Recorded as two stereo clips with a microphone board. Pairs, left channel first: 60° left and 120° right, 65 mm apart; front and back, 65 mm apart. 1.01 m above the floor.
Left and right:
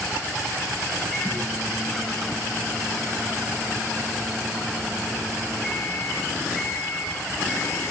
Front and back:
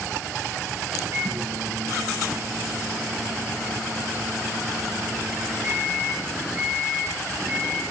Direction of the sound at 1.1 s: 140° left.